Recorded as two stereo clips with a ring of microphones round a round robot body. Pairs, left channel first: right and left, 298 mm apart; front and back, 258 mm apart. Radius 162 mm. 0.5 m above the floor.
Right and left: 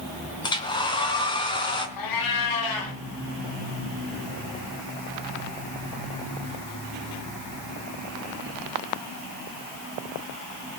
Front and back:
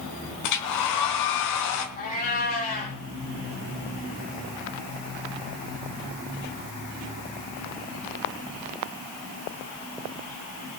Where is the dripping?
I don't hear dripping.